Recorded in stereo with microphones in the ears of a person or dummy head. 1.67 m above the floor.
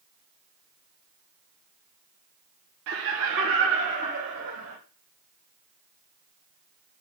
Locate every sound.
2.9 s laughter: 55° right (ahead or behind), 0.8 m; by 4.8 s 65° right (ahead or behind), 2.0 m